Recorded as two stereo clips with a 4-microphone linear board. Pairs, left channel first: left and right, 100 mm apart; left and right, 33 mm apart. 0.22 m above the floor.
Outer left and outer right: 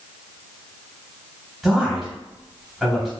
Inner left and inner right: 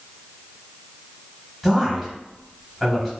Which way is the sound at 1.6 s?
5° right (ahead or behind).